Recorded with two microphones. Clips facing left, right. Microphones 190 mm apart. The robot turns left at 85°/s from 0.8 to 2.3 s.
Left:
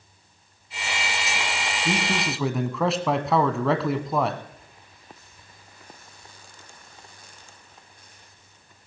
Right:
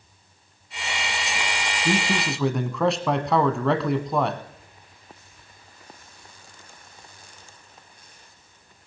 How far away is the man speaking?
About 1.0 m.